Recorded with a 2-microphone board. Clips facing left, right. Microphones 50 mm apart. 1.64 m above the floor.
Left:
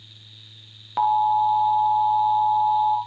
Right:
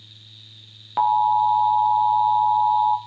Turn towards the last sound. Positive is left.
turn(degrees=-5)  # may be behind; listen again after turning